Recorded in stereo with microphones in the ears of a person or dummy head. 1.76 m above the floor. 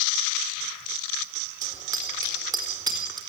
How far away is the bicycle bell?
About 4 m.